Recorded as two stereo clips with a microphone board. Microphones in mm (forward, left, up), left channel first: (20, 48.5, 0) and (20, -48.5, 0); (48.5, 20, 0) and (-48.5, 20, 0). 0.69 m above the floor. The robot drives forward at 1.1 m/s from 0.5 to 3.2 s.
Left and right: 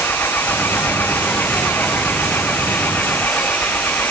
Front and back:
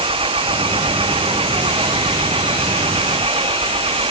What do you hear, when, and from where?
0.0 s an engine running: 160° left; by 4.1 s 165° left